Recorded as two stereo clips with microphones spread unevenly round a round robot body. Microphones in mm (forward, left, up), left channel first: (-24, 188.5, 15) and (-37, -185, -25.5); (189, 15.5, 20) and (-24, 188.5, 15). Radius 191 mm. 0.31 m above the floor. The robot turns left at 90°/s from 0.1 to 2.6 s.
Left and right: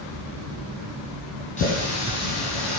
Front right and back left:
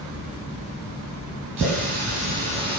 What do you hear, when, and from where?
1.6 s a running tap: 160° left, 8 m; by 2.8 s 70° left, 8 m